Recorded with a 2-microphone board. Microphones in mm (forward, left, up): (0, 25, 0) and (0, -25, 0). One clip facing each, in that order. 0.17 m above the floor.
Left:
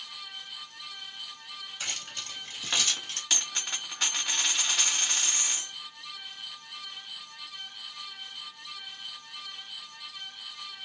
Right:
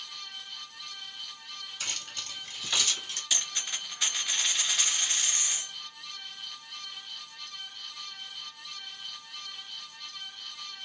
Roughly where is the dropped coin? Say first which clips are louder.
Left 1 dB; left.